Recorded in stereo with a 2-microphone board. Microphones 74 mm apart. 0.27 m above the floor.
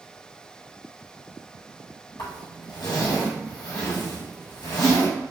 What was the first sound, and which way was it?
A zipper, 75° left (ahead or behind).